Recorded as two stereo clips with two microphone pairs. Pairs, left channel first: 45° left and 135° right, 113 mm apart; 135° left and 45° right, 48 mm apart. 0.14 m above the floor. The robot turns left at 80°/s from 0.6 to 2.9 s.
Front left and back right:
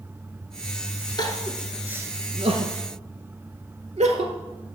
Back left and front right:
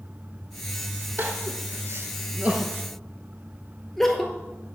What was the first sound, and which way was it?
Crying, straight ahead.